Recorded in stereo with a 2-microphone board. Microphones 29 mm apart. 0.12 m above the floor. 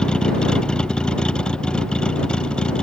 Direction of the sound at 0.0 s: 30° left (ahead or behind).